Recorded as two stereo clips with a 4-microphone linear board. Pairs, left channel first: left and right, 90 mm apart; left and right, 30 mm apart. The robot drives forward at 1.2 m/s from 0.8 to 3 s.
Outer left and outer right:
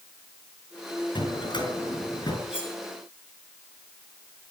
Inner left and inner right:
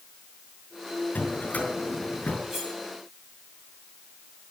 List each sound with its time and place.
1.1 s a drawer: 60° left (ahead or behind), 5 m; by 2.4 s 50° left (ahead or behind), 6 m
2.5 s cutlery clinking: 10° right (ahead or behind), 7 m